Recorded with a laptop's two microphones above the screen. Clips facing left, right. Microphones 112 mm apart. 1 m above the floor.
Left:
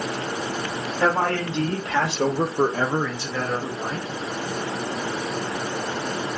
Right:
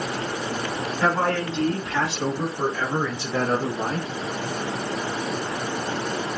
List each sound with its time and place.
1.0 s a man speaking: 85° left, 2.5 m; by 4.1 s 60° right (ahead or behind), 1.6 m